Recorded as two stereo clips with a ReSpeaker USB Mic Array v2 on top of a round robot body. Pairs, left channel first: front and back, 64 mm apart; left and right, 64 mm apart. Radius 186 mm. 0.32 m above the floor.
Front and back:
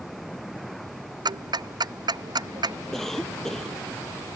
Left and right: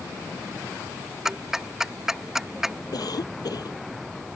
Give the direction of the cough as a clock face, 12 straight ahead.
9 o'clock.